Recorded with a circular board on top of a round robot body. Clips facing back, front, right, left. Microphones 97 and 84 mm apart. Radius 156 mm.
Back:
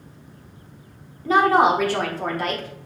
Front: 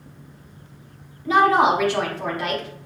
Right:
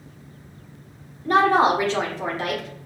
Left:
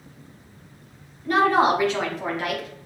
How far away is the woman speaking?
About 1.8 m.